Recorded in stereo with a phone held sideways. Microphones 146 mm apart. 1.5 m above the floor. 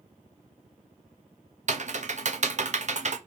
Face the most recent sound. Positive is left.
turn(degrees=-55)  # may be behind; listen again after turning